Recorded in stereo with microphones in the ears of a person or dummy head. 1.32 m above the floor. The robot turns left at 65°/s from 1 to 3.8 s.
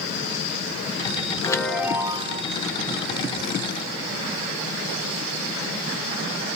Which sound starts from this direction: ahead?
A chime, at 1.4 s.